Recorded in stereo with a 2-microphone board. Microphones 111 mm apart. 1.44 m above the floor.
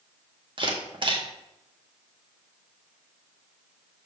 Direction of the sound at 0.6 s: 45° right (ahead or behind).